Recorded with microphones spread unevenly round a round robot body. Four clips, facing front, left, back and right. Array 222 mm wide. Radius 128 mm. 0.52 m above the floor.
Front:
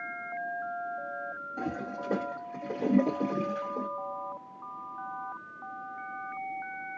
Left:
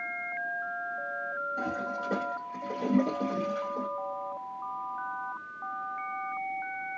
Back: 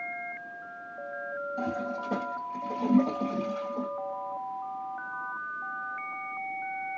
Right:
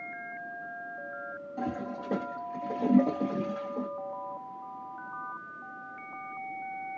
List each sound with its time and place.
1.6 s a toilet flushing: 5° left, 2 m